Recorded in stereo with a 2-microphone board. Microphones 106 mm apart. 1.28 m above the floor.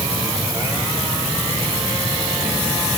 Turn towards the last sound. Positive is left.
No sound to turn to.